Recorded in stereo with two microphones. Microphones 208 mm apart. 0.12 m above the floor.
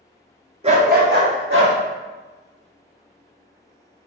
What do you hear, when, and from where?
0.6 s a dog barking: 30° right (ahead or behind), 0.7 m; by 1.7 s 70° right (ahead or behind), 1.9 m